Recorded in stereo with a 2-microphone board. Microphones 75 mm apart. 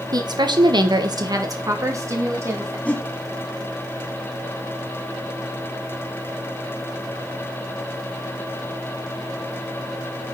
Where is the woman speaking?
55° right (ahead or behind), 1.5 m; by 2.8 s 35° right (ahead or behind), 4 m.